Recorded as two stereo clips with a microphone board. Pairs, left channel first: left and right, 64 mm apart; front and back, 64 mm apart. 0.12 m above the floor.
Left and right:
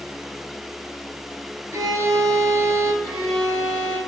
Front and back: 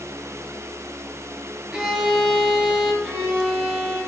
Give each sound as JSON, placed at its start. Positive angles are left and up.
{"t": 1.7, "sound": "a violin", "azimuth_deg": -100, "distance_m": 0.9}
{"t": 3.0, "sound": "a violin", "azimuth_deg": 130, "distance_m": 1.6}